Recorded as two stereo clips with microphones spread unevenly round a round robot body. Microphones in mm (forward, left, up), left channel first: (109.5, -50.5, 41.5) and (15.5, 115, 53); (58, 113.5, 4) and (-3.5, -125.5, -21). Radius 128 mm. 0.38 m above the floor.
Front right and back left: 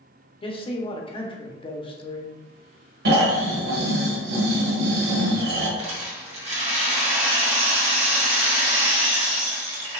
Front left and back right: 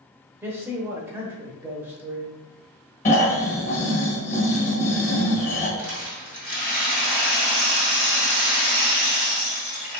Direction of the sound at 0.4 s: 35° right.